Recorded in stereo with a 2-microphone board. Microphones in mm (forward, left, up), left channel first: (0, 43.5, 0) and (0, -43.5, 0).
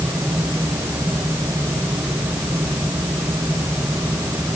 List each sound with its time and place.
Only background noise.